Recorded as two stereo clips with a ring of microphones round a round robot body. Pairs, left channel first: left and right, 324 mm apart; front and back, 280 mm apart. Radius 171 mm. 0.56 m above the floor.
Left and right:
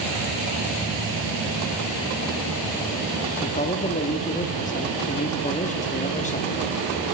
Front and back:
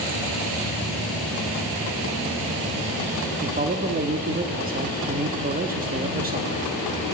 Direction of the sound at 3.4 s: 145° left.